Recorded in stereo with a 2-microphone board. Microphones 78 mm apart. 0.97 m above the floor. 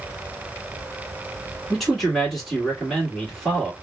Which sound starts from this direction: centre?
A man speaking, at 1.7 s.